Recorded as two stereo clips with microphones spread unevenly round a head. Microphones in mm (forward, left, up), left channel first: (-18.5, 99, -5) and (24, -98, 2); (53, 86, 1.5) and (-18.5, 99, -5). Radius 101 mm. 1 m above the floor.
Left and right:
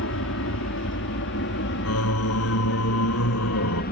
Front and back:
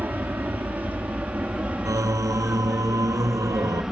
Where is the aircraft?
105° left; by 3.9 s 90° left.